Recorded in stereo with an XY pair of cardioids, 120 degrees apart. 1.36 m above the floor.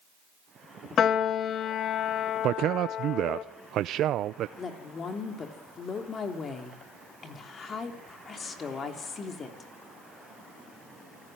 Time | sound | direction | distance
1.0 | a piano | 50° left | 2.0 m
2.4 | a man speaking | 65° right | 0.5 m
4.6 | a woman speaking | 40° left | 3.5 m